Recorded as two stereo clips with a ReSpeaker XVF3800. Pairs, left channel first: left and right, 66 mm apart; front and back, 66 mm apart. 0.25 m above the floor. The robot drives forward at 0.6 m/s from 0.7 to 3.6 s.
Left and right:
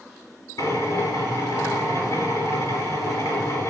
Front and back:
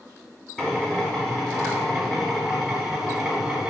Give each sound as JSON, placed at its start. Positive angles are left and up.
{"t": 0.6, "sound": "a drill", "azimuth_deg": 80, "distance_m": 5.5}